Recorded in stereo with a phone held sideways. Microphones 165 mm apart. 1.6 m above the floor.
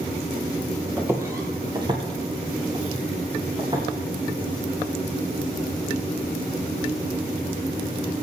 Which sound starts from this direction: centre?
Footsteps, at 1.0 s.